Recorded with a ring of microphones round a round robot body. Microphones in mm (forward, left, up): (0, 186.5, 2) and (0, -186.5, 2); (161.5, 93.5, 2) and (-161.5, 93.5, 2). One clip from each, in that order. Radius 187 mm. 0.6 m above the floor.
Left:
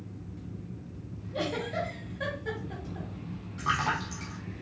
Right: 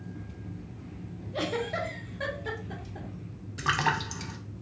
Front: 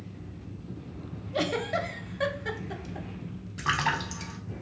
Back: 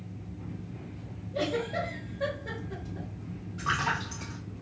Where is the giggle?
10° right, 0.6 m.